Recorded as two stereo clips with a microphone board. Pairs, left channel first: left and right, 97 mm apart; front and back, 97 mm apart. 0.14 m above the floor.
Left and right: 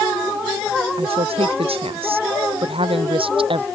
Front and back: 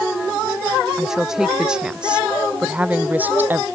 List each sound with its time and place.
1.0 s a woman speaking: 95° right; by 3.6 s 110° right